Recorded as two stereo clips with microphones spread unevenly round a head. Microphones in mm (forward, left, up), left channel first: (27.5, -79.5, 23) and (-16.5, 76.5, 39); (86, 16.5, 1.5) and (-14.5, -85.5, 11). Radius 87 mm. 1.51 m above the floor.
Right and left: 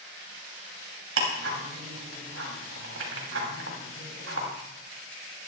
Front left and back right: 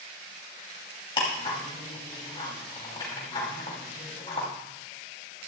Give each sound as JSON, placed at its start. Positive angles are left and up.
{"t": 1.2, "sound": "ticking", "azimuth_deg": 110, "distance_m": 3.0}